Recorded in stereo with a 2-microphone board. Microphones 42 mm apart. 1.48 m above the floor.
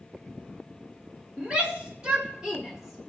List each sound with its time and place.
1.4 s a shout: 30° right (ahead or behind), 1.6 m; by 3.1 s centre (ahead or behind), 1.1 m